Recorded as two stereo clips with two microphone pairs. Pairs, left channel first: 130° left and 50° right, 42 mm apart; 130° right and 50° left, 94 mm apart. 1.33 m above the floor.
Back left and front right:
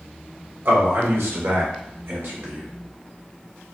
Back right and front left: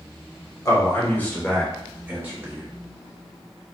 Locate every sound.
0.7 s a man speaking: 70° right, 1.1 m; by 2.7 s 10° right, 1.0 m